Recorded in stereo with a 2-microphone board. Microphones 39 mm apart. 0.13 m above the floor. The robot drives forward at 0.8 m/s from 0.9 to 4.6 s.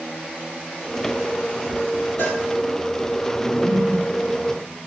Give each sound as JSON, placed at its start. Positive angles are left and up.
{"t": 2.2, "sound": "a cowbell", "side_deg": 70, "distance_m": 4.5}
{"t": 3.6, "sound": "a whoosh", "side_deg": 10, "distance_m": 5.5}